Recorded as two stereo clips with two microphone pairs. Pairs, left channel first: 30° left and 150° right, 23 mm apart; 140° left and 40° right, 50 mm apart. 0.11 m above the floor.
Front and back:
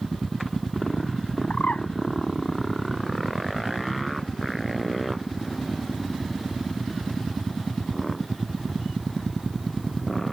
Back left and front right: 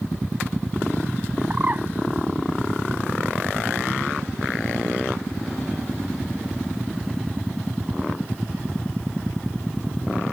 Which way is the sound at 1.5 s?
15° left.